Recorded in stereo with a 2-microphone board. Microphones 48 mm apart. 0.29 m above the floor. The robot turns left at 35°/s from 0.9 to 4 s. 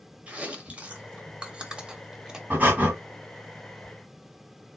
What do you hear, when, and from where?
0.3 s chewing: 20° right (ahead or behind), 1.1 m; by 2.4 s 10° right (ahead or behind), 1.1 m
2.5 s breathing: 35° right (ahead or behind), 1.8 m; by 2.9 s 25° right (ahead or behind), 1.8 m